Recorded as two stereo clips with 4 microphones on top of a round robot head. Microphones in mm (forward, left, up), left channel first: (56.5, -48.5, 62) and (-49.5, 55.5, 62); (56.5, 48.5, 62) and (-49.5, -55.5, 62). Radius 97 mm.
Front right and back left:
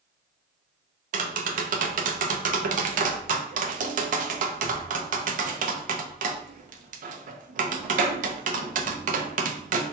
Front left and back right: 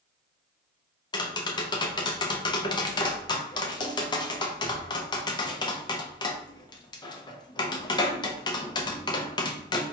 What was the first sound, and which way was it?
Tapping, 105° left.